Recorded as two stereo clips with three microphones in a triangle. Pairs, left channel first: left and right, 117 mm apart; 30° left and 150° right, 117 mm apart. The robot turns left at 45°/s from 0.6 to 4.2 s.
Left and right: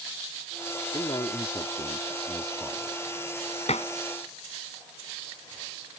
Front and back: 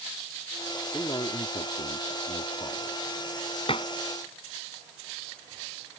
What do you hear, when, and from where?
0.9 s a man speaking: 75° left; by 3.2 s 25° right
3.7 s dishes clattering: 70° left; by 3.9 s 60° left